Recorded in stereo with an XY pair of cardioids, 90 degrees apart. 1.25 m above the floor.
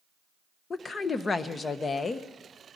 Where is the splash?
I don't hear a splash.